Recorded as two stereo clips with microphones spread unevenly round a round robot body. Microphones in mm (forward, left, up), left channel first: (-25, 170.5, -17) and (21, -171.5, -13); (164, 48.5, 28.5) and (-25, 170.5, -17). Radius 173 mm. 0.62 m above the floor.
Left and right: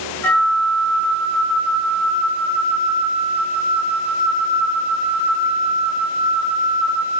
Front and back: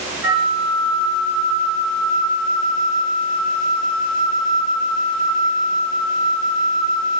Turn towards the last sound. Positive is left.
turn(degrees=180)